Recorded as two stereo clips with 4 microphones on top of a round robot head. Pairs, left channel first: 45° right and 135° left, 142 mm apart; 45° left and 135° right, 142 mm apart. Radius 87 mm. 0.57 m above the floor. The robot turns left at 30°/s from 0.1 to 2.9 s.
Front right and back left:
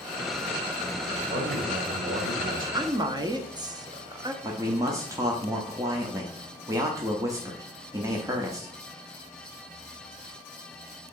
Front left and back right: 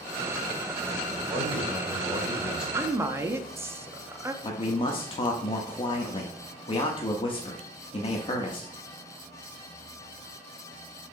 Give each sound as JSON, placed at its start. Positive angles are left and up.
{"t": 1.1, "sound": "a man speaking", "azimuth_deg": -175, "distance_m": 3.0}
{"t": 2.7, "sound": "a woman speaking", "azimuth_deg": 170, "distance_m": 0.8}
{"t": 4.4, "sound": "a man speaking", "azimuth_deg": 75, "distance_m": 0.8}